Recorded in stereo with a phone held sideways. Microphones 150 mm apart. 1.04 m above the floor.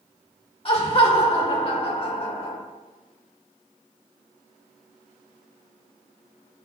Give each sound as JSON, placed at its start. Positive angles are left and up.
{"t": 0.7, "sound": "laughter", "side_deg": 40, "distance_m": 1.6}